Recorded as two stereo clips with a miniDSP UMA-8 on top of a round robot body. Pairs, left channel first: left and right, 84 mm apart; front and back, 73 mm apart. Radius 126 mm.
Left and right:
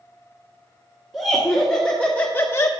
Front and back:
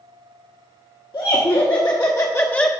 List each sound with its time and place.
1.1 s laughter: 5° left, 1.9 m; by 2.7 s 75° left, 0.7 m